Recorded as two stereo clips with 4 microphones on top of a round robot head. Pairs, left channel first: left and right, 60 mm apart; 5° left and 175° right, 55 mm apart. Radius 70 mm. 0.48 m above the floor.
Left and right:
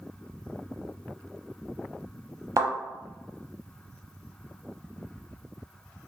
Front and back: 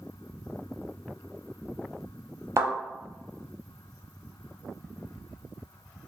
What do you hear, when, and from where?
2.6 s a thud: 130° right, 0.7 m